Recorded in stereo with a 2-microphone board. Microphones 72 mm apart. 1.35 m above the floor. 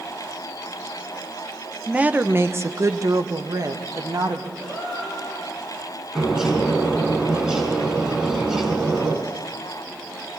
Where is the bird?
10° right (ahead or behind), 4.5 m.